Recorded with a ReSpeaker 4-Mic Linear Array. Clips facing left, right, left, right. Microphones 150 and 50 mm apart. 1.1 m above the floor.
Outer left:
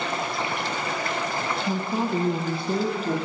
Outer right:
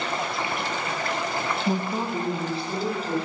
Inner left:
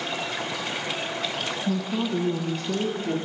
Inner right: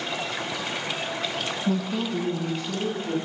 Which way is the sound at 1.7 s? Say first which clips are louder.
Outer left 2 dB, even; 25° right (ahead or behind).